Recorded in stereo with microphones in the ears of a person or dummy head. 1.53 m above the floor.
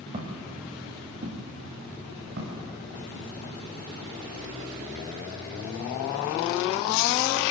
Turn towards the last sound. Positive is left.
turn(degrees=-75)  # may be behind; listen again after turning